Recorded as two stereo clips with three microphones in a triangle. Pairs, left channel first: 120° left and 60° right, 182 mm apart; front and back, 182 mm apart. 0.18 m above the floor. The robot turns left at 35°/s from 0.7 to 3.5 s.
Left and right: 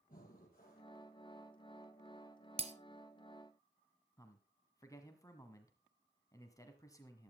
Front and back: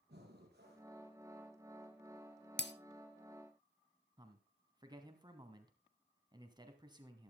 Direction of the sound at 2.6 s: 5° right.